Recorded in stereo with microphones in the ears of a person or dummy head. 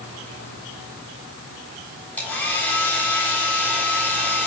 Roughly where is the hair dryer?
Centre.